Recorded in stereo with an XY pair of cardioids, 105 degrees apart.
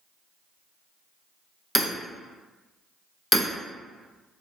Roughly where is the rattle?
No rattle in this recording.